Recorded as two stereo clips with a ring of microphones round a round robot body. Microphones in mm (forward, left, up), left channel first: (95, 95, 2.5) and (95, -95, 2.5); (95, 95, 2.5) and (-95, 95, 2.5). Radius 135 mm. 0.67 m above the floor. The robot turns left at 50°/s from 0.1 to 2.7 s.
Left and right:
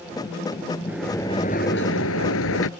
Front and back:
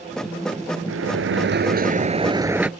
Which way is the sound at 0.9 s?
175° right.